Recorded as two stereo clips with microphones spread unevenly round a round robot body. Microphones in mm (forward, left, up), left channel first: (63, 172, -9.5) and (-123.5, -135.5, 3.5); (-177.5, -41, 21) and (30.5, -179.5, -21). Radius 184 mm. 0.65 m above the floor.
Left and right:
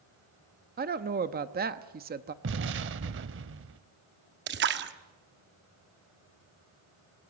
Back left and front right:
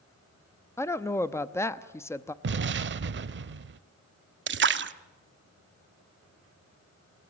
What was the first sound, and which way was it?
A woman speaking, 125° right.